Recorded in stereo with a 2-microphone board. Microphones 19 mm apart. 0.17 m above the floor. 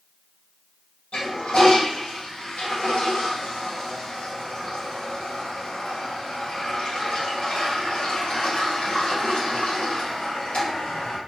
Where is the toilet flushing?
70° left (ahead or behind), 1.7 m.